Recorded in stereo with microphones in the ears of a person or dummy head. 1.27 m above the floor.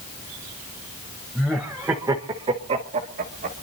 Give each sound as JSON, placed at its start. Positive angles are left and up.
{"t": 1.4, "sound": "laughter", "side_deg": 0, "distance_m": 1.2}